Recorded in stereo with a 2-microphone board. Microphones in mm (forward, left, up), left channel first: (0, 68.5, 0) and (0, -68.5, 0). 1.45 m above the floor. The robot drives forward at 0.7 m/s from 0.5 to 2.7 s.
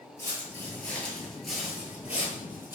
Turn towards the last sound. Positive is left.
turn(degrees=-15)  # may be behind; listen again after turning